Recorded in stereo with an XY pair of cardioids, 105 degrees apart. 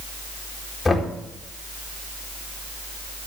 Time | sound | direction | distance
0.8 | knocking | 25° left | 2 m